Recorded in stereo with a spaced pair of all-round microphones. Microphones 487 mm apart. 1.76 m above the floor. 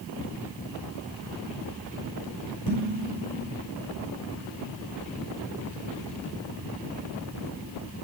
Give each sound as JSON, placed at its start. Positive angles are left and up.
{"t": 2.7, "sound": "dishes clattering", "side_deg": 45, "distance_m": 5.5}